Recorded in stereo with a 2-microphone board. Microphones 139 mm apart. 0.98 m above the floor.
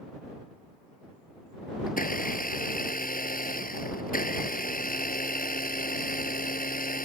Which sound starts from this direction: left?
A blender, at 1.9 s.